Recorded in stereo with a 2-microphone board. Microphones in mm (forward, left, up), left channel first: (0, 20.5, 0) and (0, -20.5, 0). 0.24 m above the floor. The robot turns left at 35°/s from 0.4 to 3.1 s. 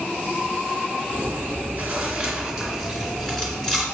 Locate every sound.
1.1 s chewing: 125° right, 2.5 m; by 3.8 s 170° left, 2.5 m